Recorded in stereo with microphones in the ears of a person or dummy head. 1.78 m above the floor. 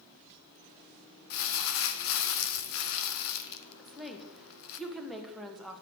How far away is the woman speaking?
About 2 m.